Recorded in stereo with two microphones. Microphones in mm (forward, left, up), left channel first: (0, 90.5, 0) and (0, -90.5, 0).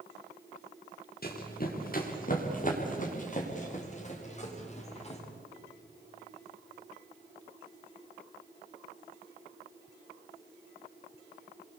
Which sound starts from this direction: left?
Running footsteps, at 1.2 s.